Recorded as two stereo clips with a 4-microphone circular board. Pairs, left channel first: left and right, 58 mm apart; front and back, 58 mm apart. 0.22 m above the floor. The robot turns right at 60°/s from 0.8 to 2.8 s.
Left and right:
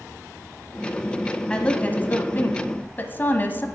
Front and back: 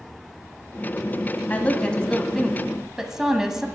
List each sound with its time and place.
1.5 s a woman speaking: 30° left, 1.1 m; by 3.7 s 105° left, 1.1 m